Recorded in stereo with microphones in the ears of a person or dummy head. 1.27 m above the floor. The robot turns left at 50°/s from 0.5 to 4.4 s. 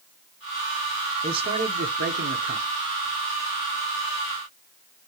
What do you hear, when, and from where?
1.2 s a man speaking: 30° right, 0.8 m; by 2.7 s 100° right, 0.8 m